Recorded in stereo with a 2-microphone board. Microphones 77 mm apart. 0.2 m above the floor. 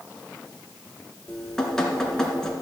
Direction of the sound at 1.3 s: 5° left (ahead or behind).